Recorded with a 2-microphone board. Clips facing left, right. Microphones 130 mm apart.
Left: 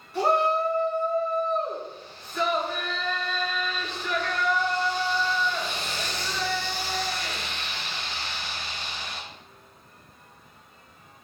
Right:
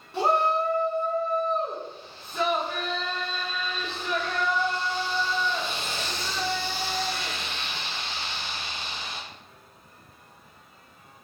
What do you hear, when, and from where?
0.1 s a shout: 30° right (ahead or behind), 4 m